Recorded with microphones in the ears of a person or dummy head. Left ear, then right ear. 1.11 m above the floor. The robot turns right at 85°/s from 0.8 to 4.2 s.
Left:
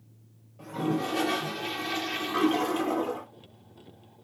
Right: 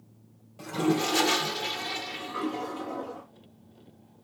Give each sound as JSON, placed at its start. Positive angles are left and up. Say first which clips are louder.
{"t": 0.6, "sound": "a toilet flushing", "louder": "right 3 dB", "azimuth_deg": -85, "distance_m": 0.5}